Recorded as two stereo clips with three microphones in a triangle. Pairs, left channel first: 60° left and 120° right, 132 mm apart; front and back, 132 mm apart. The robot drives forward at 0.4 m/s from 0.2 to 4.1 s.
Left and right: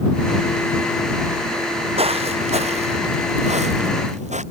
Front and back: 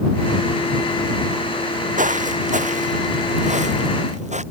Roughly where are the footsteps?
Behind.